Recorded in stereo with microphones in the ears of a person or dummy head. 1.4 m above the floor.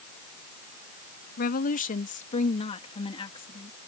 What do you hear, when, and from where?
1.4 s a woman speaking: 45° left (ahead or behind); by 3.8 s 20° left (ahead or behind)